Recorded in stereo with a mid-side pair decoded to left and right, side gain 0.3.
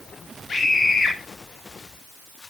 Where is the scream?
55° left, 4 m.